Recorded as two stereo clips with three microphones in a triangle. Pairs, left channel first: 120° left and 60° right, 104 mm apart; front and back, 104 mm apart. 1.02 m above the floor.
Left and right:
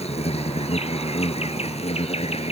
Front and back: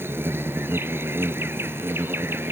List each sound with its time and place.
0.0 s an insect: 110° left